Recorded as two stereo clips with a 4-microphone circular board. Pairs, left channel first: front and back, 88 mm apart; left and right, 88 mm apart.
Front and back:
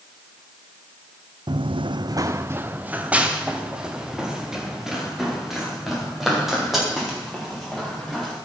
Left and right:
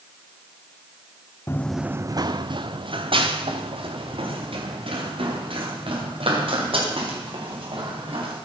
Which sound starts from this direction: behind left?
Running footsteps, at 1.5 s.